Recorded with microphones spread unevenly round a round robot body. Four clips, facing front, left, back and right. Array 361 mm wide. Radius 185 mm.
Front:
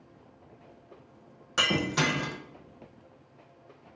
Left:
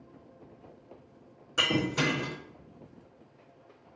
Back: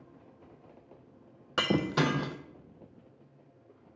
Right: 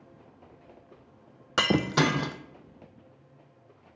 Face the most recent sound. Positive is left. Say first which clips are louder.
# right 4 dB, even
turn(degrees=-85)